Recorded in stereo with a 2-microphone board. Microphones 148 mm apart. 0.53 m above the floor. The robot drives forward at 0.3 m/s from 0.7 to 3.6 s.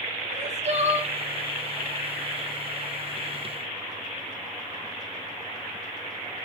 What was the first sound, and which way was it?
Crying, 45° right (ahead or behind).